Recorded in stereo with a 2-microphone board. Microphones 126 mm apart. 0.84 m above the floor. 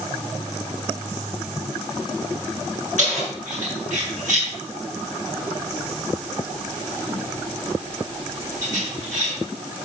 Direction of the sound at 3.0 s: 80° right.